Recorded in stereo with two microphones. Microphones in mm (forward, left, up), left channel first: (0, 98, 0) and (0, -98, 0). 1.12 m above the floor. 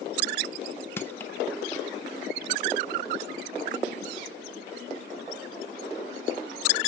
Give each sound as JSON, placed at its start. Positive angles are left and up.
{"t": 1.0, "sound": "crushing", "side_deg": 10, "distance_m": 0.7}